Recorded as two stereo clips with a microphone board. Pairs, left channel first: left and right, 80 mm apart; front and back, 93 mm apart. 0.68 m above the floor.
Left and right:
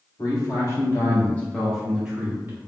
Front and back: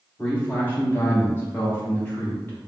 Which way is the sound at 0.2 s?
65° left.